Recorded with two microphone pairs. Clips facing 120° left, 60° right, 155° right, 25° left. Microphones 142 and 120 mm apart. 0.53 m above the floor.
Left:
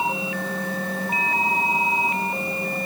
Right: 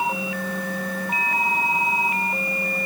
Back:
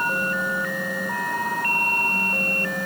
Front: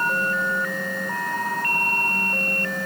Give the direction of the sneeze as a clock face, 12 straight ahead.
I don't hear a sneeze.